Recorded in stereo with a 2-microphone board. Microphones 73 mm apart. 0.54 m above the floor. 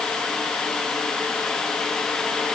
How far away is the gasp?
No gasp in this recording.